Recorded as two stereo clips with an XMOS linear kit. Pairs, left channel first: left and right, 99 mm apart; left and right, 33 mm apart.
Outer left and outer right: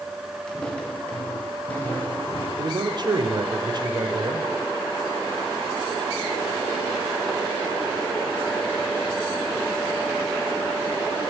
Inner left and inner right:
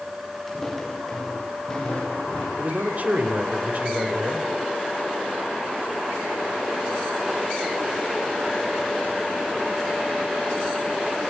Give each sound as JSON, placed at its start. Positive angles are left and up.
{"t": 0.5, "sound": "footsteps", "side_deg": 5, "distance_m": 6.0}
{"t": 2.6, "sound": "a man speaking", "side_deg": -45, "distance_m": 3.0}